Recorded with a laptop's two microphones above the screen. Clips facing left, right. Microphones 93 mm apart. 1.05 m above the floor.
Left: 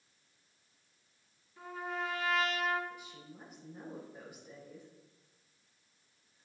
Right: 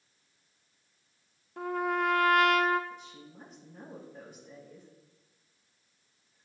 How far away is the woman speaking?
About 6 m.